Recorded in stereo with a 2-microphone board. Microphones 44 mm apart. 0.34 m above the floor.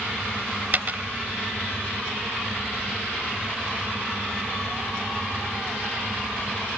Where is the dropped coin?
40° right (ahead or behind).